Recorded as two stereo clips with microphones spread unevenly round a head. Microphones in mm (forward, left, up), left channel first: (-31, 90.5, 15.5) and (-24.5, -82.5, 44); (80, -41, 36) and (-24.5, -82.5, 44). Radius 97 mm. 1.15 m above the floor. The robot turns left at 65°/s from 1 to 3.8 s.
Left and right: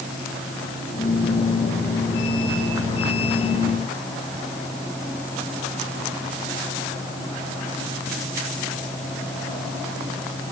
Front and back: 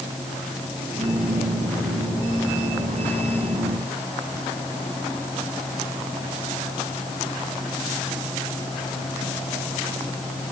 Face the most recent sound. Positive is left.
No sound to turn to.